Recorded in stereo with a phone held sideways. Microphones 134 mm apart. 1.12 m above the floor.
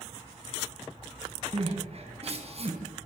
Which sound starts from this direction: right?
Crying, at 1.5 s.